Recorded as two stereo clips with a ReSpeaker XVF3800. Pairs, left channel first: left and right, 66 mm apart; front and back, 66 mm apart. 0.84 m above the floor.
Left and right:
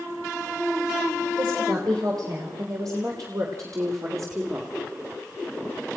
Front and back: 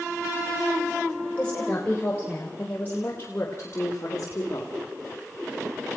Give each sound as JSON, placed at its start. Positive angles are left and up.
{"t": 1.4, "sound": "a woman speaking", "azimuth_deg": -70, "distance_m": 4.5}